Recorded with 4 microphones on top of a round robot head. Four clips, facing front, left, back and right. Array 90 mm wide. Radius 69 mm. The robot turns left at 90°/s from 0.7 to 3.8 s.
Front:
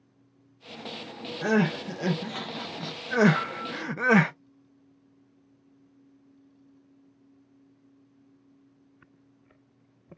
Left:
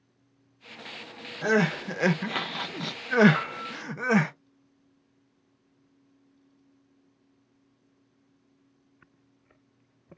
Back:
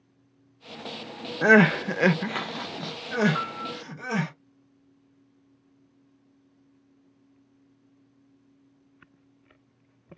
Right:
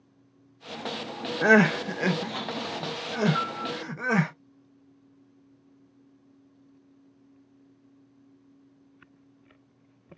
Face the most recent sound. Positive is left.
turn(degrees=35)